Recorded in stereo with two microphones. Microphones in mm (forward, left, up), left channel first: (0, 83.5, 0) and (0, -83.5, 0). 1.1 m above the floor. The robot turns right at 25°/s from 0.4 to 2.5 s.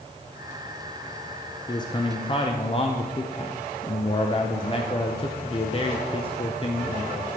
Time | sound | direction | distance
1.7 | a man speaking | 25° left (ahead or behind) | 0.7 m